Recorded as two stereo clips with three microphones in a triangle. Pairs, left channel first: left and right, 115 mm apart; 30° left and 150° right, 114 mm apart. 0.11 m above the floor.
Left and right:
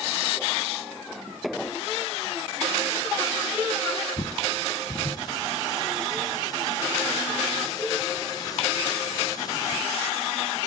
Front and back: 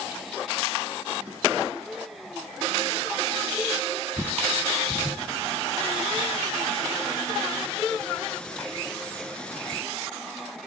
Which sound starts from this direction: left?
A bird, at 4.2 s.